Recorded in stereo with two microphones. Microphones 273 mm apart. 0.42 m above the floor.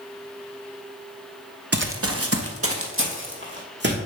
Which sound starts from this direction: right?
Running footsteps, at 1.7 s.